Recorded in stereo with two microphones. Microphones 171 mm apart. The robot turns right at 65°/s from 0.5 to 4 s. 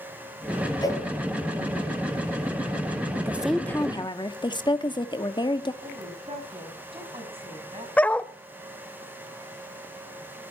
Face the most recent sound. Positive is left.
turn(degrees=10)  # may be behind; listen again after turning